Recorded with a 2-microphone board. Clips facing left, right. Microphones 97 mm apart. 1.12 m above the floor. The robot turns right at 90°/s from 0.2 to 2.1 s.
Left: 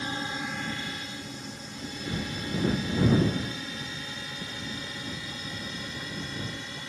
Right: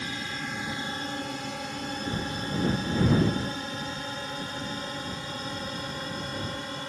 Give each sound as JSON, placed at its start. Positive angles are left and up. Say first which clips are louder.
{"t": 0.0, "sound": "a drone", "louder": "left 2 dB", "side_deg": 30}